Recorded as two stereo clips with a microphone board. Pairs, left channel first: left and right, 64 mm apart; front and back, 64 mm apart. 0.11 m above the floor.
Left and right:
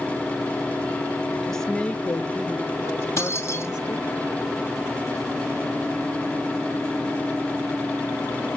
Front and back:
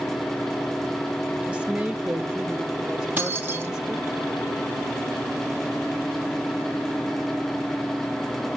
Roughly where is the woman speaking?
Behind.